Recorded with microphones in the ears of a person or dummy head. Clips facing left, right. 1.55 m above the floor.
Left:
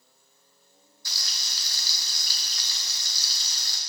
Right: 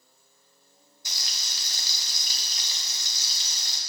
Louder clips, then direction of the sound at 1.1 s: Right 1 dB; 20° right (ahead or behind).